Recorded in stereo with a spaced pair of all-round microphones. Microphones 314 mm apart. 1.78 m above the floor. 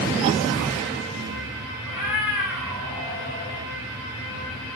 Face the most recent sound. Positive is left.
turn(degrees=-70)  # may be behind; listen again after turning